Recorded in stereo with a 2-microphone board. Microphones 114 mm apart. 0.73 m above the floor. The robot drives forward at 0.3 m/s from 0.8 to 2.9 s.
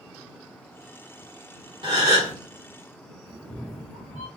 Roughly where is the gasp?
Right.